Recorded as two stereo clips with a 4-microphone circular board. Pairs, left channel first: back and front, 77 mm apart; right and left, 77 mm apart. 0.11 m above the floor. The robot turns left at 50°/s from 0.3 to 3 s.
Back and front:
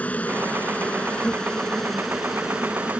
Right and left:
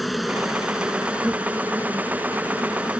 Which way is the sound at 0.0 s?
175° left.